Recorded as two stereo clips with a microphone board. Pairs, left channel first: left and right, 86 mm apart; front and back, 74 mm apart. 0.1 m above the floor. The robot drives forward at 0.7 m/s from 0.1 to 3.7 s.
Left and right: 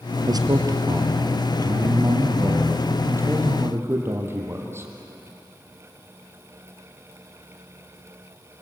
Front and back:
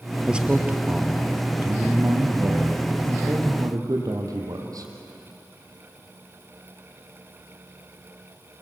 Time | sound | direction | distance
0.3 | a man speaking | 105° right | 2.5 m